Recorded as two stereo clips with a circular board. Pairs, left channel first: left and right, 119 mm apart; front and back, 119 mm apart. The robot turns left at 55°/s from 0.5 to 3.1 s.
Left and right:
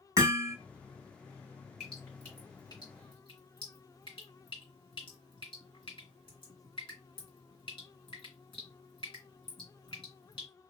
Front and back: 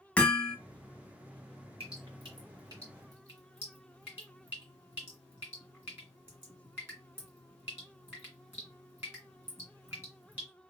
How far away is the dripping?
About 2 m.